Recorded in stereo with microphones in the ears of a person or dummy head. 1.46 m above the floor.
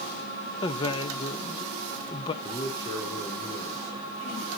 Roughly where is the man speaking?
Left.